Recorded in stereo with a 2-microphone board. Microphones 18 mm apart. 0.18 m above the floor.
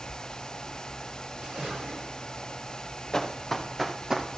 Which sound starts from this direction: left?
Running footsteps, at 3.1 s.